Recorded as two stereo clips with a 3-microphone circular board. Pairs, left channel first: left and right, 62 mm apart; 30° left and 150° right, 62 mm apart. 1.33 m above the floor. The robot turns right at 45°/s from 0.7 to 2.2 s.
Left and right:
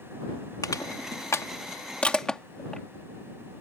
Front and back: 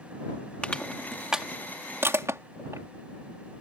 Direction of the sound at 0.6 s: 100° left.